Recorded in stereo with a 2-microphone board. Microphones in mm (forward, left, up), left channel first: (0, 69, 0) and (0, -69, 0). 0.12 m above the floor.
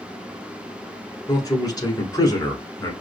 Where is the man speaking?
25° left (ahead or behind), 1.2 m.